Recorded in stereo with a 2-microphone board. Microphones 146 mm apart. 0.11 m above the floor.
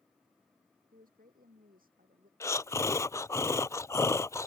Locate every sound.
0.9 s a woman speaking: 75° right (ahead or behind); by 2.3 s 80° right
2.4 s breathing: 20° left (ahead or behind)